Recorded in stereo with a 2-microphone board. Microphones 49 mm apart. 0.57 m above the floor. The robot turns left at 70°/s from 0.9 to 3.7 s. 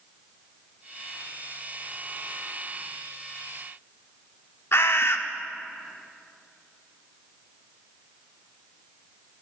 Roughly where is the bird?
Left.